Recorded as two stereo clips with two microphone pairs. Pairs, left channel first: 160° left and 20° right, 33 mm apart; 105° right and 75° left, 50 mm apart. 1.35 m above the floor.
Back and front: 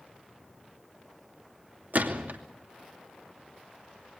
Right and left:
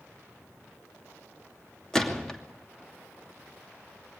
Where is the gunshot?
30° right, 2.5 m.